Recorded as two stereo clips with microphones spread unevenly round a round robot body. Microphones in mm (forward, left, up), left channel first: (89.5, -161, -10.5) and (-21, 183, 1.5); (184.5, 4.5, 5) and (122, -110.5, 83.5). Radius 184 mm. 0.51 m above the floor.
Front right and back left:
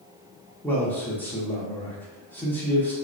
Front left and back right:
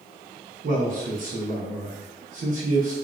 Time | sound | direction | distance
0.6 | a man speaking | 145° right | 0.7 m